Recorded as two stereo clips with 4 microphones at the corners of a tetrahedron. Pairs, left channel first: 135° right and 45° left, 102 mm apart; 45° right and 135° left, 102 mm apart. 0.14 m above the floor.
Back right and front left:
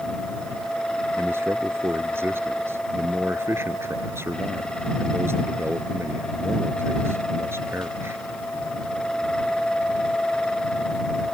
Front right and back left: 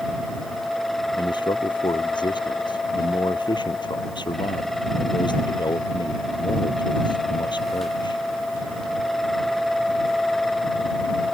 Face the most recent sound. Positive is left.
turn(degrees=-15)